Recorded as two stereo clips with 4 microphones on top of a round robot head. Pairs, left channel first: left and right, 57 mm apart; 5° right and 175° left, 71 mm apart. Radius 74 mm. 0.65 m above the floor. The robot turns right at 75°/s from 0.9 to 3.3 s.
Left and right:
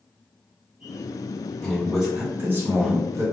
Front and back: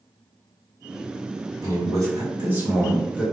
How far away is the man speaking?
About 1.7 m.